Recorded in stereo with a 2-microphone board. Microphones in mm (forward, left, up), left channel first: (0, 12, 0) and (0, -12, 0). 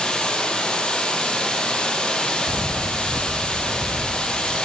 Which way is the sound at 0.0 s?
40° left (ahead or behind).